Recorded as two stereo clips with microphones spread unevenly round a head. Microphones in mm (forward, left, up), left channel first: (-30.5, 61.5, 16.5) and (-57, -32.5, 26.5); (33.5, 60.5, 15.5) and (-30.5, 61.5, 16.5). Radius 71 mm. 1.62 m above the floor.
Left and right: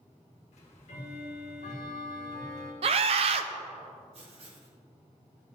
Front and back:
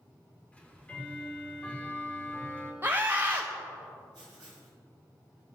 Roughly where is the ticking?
Left.